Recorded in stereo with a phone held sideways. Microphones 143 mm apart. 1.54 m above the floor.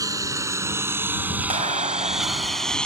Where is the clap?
50° right (ahead or behind).